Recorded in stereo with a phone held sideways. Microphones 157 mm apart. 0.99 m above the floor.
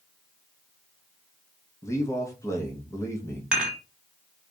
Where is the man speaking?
20° left (ahead or behind), 0.9 m.